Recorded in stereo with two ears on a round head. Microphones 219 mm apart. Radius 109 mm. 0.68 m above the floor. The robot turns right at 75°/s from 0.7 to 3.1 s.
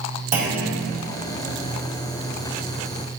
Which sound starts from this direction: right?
A clunk, at 0.3 s.